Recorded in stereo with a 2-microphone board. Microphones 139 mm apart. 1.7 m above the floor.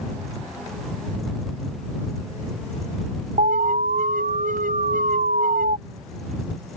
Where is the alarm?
75° right (ahead or behind).